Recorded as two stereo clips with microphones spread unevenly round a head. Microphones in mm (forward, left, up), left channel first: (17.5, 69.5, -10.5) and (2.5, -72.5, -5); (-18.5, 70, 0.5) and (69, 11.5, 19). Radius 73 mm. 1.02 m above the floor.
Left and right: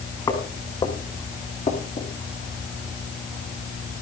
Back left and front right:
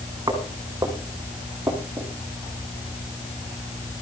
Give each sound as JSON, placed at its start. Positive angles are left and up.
{"t": 0.3, "sound": "footsteps", "azimuth_deg": 20, "distance_m": 5.5}